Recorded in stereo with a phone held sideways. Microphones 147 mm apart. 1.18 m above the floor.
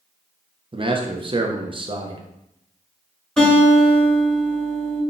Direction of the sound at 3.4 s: 5° left (ahead or behind).